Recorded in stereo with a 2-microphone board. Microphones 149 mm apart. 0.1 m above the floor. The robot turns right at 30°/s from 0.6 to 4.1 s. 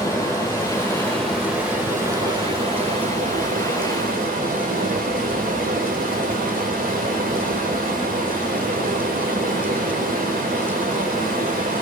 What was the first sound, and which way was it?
Running water, 160° left.